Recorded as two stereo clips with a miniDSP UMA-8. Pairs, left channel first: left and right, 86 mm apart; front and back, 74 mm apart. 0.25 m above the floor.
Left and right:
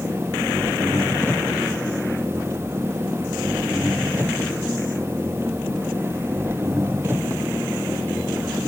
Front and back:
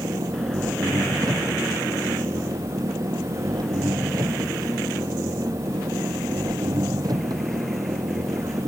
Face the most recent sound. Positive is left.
turn(degrees=-150)